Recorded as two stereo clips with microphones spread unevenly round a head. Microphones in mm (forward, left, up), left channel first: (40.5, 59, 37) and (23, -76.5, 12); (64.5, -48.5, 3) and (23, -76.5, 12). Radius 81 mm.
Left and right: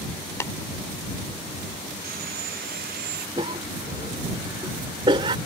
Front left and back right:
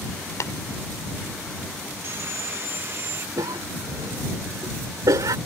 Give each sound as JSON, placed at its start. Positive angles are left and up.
{"t": 0.4, "sound": "tapping", "azimuth_deg": 15}
{"t": 2.0, "sound": "sawing", "azimuth_deg": -110}
{"t": 3.4, "sound": "a cough", "azimuth_deg": -165}